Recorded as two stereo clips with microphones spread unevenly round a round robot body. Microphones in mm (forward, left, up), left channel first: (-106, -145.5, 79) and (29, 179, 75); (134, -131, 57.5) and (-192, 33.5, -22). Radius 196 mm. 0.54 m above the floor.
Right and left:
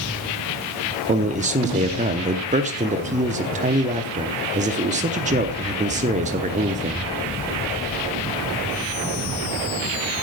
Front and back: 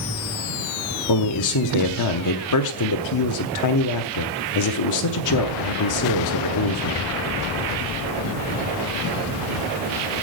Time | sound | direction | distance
1.1 | a man speaking | 5° left | 0.8 m